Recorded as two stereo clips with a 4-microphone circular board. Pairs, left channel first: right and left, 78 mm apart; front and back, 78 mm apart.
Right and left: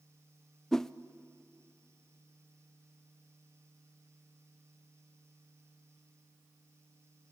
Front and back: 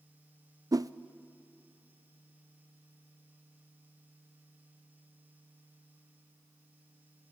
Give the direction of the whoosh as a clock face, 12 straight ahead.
6 o'clock.